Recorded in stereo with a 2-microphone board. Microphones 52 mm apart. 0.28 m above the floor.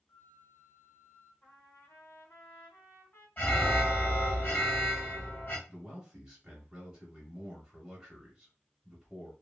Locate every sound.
0.1 s a flute: 35° left (ahead or behind), 0.9 m
1.4 s a trumpet: 50° left (ahead or behind), 1.9 m
3.4 s an alarm: 30° left (ahead or behind), 2.5 m
5.7 s a man speaking: 15° right (ahead or behind), 1.6 m